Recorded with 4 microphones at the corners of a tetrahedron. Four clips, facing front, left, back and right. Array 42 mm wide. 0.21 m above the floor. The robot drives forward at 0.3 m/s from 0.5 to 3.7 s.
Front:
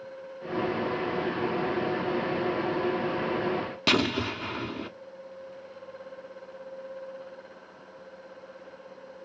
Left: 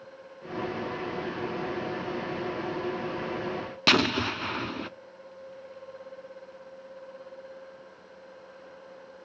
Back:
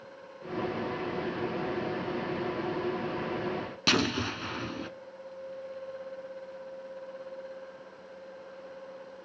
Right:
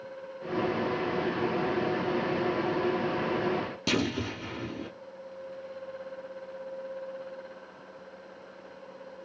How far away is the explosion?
About 0.6 m.